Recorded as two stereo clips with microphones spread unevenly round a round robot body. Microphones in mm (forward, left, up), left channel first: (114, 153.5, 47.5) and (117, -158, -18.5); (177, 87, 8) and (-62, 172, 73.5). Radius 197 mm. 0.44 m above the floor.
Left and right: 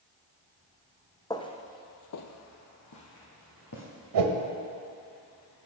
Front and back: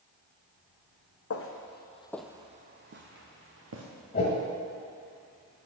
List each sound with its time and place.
1.3 s footsteps: 15° left, 1.3 m; by 3.8 s 140° left, 2 m
4.1 s a whoosh: 85° right, 0.9 m